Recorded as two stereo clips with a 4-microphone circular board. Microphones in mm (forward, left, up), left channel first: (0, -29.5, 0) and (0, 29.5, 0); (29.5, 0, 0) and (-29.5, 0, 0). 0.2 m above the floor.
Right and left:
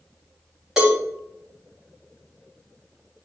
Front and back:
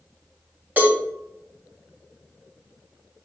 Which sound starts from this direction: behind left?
A cowbell, at 0.8 s.